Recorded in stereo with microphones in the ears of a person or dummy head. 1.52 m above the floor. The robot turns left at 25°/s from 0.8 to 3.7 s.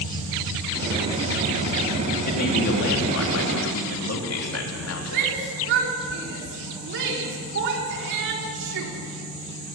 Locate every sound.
2.3 s a man speaking: 130° left, 3.5 m; by 5.2 s 90° left, 3.5 m
5.1 s a shout: 70° right (ahead or behind), 3.5 m